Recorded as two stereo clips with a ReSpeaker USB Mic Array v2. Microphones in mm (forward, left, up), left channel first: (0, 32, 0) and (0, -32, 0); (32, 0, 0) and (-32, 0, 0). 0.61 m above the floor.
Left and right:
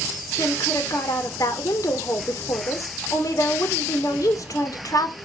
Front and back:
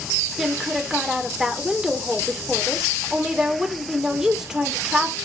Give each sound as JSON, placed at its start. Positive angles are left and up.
{"t": 0.4, "sound": "a woman speaking", "azimuth_deg": 100, "distance_m": 1.7}